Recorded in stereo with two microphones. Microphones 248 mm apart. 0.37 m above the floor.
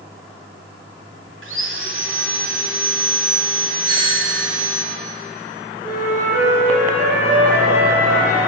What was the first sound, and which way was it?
Sawing, 50° right (ahead or behind).